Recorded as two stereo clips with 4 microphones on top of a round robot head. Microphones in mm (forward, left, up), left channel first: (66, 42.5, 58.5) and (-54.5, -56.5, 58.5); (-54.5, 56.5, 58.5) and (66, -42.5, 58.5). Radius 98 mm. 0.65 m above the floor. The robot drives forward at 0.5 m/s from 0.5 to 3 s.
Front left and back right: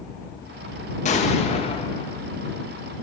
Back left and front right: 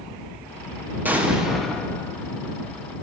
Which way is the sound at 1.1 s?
35° left.